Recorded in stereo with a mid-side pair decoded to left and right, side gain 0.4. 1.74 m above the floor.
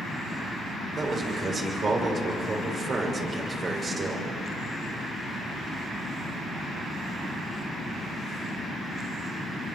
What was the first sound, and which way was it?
A man speaking, 50° right.